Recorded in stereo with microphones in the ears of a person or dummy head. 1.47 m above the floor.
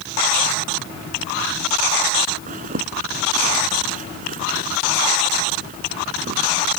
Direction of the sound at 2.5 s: 40° right (ahead or behind).